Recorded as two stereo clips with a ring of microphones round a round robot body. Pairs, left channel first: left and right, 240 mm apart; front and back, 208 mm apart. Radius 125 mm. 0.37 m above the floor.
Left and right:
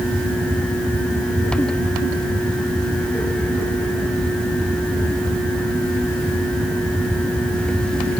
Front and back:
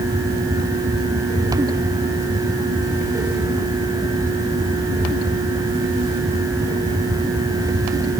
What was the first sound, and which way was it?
Only background noise.